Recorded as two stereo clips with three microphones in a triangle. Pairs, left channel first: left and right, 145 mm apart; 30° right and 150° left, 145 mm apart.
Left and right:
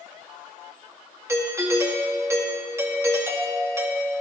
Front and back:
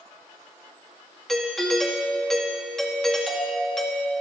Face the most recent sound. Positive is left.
turn(degrees=-115)